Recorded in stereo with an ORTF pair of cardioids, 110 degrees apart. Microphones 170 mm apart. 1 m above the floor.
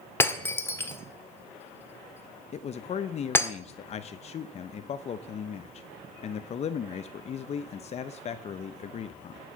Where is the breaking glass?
15° left, 1.4 m.